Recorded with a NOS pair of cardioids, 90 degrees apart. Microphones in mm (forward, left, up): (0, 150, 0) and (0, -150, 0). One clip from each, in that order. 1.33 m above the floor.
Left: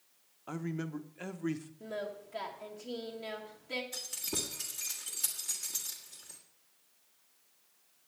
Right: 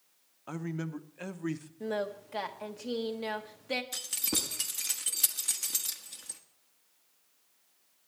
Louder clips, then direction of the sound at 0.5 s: Right 1 dB; 10° right.